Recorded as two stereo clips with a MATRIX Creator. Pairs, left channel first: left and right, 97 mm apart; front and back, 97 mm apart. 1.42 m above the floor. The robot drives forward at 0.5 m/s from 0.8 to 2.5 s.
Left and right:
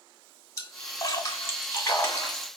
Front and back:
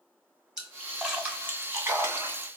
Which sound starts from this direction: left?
A splash, at 0.6 s.